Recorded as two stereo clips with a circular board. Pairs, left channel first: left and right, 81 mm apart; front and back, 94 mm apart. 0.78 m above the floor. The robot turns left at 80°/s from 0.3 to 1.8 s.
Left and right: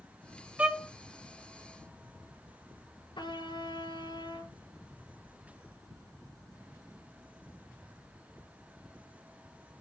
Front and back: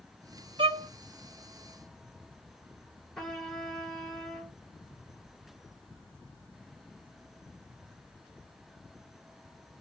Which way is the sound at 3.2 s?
85° left.